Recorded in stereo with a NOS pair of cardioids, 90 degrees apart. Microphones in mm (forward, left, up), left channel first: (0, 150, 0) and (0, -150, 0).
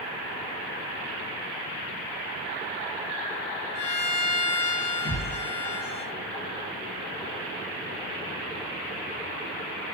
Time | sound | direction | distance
3.8 | a violin | 55° left | 0.6 m
5.0 | a thud | 40° left | 1.3 m